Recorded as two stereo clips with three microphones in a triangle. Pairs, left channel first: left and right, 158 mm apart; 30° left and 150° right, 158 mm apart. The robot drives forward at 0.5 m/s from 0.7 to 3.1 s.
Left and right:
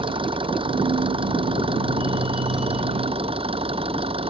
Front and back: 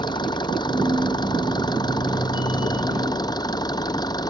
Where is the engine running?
30° right; by 4.3 s 35° right.